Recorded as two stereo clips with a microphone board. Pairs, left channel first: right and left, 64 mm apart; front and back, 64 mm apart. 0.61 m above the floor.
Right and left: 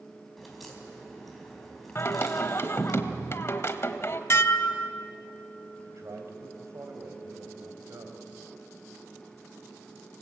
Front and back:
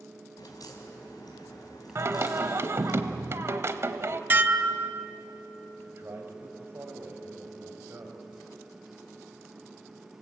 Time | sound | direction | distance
0.4 | a crack | straight ahead | 4 m
1.9 | singing | 135° right | 1.0 m
4.3 | dishes clattering | 125° right | 0.8 m
5.8 | a man speaking | 130° left | 3.5 m